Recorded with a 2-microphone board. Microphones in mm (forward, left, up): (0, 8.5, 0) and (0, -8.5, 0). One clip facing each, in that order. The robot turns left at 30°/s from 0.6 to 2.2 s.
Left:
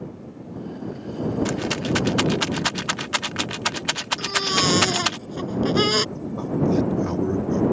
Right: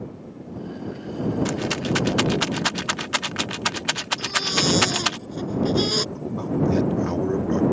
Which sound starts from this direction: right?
A man speaking, at 6.2 s.